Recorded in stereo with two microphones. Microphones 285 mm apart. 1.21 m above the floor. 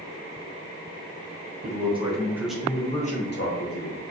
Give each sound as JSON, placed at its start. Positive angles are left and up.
{"t": 1.6, "sound": "a man speaking", "side_deg": -25, "distance_m": 1.0}